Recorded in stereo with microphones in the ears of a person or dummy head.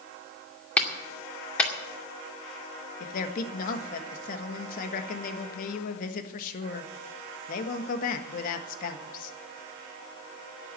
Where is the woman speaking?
45° left (ahead or behind), 1.5 m.